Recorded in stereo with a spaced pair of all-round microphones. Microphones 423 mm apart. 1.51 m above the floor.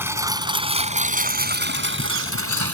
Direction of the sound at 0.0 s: 5° right (ahead or behind).